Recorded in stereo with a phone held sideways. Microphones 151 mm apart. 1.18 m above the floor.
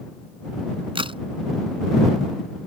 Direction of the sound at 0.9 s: 35° right (ahead or behind).